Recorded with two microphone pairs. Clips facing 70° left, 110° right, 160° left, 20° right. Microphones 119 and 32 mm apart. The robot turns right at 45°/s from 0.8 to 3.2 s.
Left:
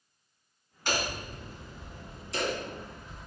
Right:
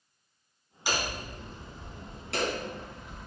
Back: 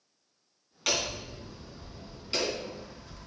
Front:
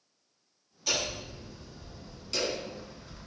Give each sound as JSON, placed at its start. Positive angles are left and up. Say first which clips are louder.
{"t": 0.9, "sound": "hammering", "louder": "even, back 1 dB", "azimuth_deg": 165, "distance_m": 3.0}